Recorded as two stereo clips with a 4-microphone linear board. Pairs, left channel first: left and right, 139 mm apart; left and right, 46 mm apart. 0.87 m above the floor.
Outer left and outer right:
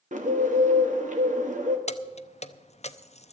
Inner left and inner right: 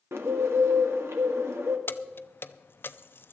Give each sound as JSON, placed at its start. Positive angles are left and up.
{"t": 0.1, "sound": "a bird", "side_deg": -65, "distance_m": 1.9}
{"t": 1.9, "sound": "keys jangling", "side_deg": 50, "distance_m": 0.6}